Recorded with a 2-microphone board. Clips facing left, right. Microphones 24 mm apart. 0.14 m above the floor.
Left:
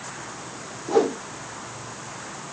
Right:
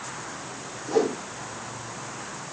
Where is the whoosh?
40° left (ahead or behind), 2 m.